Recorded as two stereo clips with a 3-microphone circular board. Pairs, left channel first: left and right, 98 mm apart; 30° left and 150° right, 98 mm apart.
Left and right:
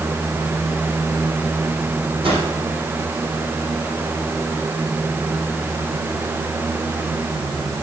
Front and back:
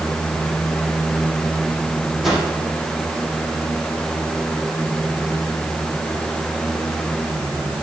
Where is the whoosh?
65° right, 4.5 m.